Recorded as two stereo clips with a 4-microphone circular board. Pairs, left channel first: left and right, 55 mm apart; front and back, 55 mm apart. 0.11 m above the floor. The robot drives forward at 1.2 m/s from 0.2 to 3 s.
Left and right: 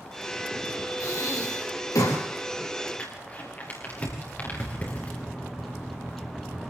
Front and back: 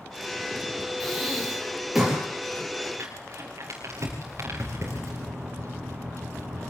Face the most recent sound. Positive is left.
turn(degrees=175)